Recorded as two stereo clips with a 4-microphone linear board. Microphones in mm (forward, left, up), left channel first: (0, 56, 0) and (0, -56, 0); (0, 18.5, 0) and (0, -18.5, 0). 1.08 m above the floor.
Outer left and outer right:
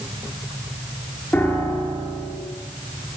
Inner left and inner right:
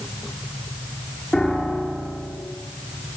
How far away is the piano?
About 9.5 m.